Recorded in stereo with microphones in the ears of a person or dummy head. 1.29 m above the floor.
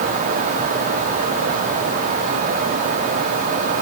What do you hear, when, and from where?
Only background noise.